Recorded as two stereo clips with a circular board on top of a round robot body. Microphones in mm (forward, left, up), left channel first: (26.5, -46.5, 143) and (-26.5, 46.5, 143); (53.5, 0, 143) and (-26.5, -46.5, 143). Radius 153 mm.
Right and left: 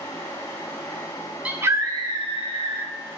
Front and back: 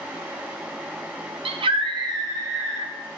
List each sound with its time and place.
1.4 s a scream: 160° right, 1.0 m; by 2.9 s 145° left, 1.9 m